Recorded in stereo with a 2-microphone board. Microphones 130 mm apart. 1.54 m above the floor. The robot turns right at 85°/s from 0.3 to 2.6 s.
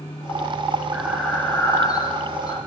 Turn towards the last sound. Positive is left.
turn(degrees=125)